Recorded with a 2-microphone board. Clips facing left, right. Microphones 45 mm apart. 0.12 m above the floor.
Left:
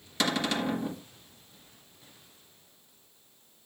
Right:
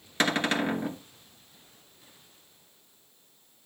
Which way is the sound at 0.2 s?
35° right (ahead or behind).